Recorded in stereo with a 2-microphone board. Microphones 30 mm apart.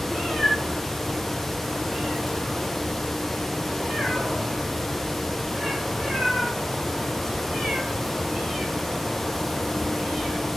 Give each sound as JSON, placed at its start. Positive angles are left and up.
{"t": 0.1, "sound": "a cat meowing", "side_deg": 10, "distance_m": 9.0}